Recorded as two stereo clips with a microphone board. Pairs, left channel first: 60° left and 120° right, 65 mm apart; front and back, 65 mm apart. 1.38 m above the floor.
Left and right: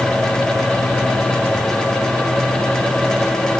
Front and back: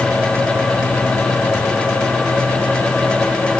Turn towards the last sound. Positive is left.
No sound to turn to.